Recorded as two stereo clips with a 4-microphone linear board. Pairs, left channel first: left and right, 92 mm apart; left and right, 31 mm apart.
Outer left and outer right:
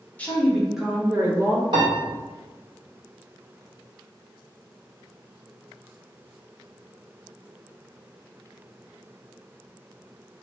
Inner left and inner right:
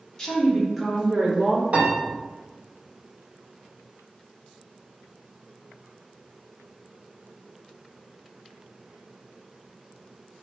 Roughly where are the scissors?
I don't hear scissors.